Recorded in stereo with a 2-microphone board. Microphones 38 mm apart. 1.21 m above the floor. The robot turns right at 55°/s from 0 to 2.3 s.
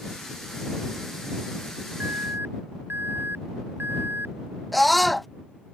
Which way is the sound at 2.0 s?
85° right.